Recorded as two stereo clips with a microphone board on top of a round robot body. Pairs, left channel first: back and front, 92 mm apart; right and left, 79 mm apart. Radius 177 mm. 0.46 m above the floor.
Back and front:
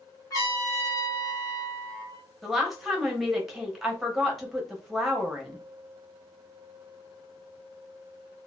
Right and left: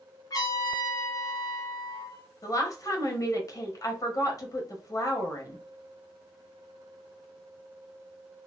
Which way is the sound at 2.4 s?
85° right.